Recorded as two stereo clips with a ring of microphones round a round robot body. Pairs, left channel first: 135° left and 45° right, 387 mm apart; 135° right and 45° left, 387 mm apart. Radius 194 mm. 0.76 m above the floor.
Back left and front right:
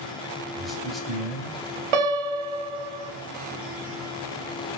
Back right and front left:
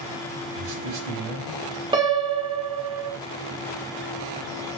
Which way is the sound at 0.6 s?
45° left.